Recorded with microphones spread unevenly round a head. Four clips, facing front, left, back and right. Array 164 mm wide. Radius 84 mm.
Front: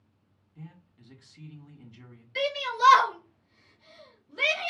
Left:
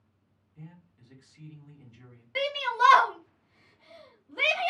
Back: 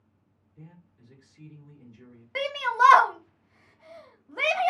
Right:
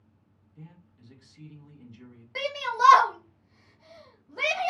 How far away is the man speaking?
About 1.5 m.